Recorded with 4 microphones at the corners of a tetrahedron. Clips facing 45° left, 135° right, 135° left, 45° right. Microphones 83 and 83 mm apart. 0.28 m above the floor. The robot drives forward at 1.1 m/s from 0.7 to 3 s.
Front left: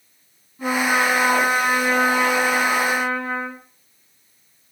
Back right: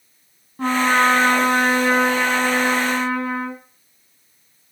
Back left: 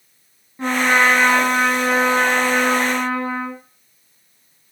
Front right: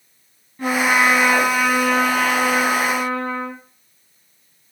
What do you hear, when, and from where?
0.6 s a trumpet: 160° right, 2.5 m; by 3.6 s 170° right, 5 m